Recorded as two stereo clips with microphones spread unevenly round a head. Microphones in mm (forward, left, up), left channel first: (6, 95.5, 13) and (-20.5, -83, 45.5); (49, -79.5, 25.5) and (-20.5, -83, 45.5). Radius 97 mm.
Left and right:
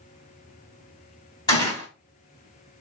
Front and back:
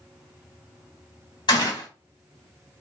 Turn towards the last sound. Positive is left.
turn(degrees=10)